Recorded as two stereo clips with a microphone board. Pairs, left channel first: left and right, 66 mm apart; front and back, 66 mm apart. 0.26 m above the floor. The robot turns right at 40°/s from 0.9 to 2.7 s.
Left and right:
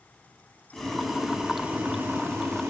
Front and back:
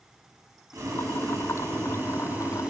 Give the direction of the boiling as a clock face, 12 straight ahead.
6 o'clock.